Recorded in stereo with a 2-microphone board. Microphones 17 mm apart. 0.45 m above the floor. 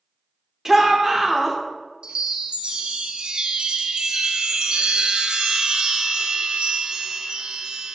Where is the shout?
20° right (ahead or behind), 0.9 m.